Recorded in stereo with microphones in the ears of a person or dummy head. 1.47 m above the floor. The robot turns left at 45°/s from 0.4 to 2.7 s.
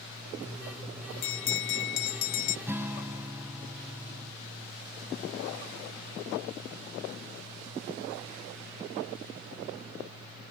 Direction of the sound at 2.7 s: 10° right (ahead or behind).